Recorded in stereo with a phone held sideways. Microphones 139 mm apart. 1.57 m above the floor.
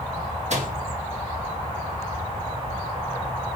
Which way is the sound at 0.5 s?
55° right (ahead or behind).